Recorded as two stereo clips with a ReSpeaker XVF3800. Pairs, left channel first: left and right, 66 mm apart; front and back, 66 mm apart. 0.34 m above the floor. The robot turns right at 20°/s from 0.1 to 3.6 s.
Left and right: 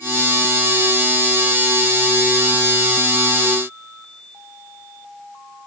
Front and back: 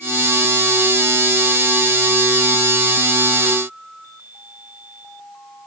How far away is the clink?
I don't hear a clink.